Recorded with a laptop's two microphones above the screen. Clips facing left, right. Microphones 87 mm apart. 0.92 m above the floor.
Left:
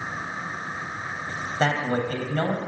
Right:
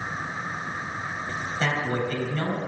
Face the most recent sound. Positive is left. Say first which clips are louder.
# left 3 dB
turn(degrees=45)  # may be behind; listen again after turning